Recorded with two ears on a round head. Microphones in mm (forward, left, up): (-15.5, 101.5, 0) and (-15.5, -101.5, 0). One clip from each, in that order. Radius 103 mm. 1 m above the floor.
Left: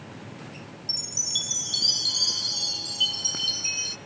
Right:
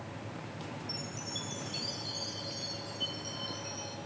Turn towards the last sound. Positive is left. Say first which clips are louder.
# left 15 dB
turn(degrees=70)  # may be behind; listen again after turning